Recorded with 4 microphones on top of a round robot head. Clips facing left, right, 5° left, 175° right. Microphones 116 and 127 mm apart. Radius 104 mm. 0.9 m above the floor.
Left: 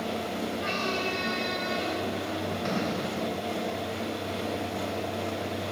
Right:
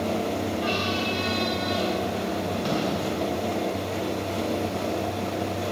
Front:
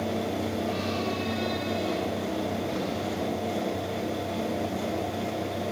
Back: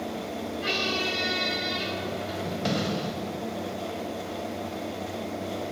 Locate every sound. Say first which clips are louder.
0.6 s a squeak: right 4 dB, front 1 dB; 170° right, 4 m